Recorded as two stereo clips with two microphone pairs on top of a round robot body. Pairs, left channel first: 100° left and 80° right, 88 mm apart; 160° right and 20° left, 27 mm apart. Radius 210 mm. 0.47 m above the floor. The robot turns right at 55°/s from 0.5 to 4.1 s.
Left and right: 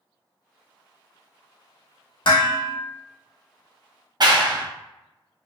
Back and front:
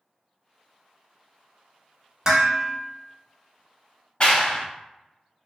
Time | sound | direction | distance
2.2 | dishes clattering | 85° left | 1.1 m
4.2 | a clap | 110° right | 0.8 m